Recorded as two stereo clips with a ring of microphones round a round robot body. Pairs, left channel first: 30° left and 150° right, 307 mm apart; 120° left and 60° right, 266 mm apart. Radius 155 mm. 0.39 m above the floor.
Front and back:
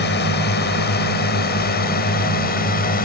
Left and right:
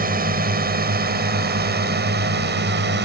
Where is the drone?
15° right; by 3.0 s 25° right.